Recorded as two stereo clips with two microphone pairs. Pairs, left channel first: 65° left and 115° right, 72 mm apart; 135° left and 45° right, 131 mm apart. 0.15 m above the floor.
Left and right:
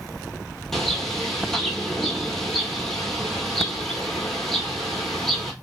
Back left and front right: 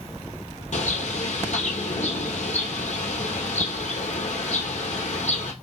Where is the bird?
150° left, 1.2 m.